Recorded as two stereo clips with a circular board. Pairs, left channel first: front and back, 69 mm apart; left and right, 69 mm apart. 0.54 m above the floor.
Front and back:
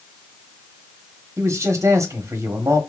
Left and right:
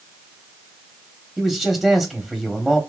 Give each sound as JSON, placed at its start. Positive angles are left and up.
{"t": 1.4, "sound": "a man speaking", "azimuth_deg": 175, "distance_m": 1.3}